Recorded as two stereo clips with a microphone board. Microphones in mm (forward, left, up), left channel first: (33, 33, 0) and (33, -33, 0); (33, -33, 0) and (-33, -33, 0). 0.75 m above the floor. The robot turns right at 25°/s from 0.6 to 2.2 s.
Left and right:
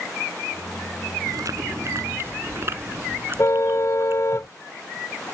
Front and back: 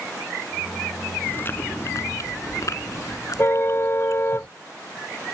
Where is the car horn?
50° left.